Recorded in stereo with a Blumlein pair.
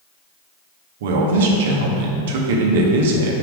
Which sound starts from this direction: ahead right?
A man speaking, at 1.0 s.